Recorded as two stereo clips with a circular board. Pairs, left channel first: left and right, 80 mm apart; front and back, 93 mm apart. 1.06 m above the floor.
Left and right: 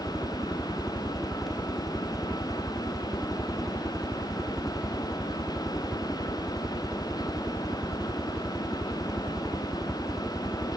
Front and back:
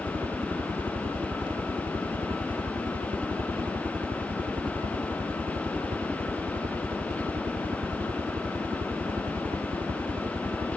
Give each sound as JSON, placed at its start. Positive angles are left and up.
{"t": 0.0, "sound": "a helicopter", "azimuth_deg": -175}